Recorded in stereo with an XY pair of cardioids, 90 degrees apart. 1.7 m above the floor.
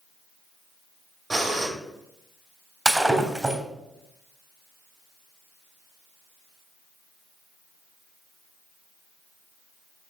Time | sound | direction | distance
1.3 | breathing | 15° right | 2.5 m
2.9 | breaking glass | 10° right | 3 m